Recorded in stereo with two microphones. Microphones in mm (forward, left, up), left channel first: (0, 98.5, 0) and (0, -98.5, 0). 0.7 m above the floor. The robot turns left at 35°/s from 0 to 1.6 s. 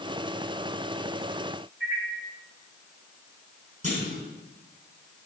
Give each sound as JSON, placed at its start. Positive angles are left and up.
{"t": 1.8, "sound": "a microwave", "side_deg": -75, "distance_m": 6.5}
{"t": 3.8, "sound": "a clunk", "side_deg": -40, "distance_m": 8.0}